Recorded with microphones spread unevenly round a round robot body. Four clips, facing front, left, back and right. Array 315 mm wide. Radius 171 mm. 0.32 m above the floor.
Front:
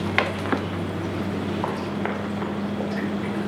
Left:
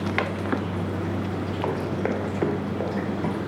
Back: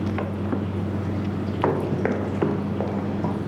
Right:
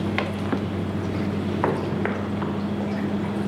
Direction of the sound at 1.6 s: 155° right.